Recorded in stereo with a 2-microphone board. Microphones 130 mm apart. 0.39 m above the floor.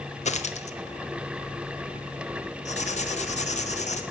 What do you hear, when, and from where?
0.2 s a dropped coin: 60° left (ahead or behind), 0.8 m
2.6 s writing: 65° left (ahead or behind), 1.2 m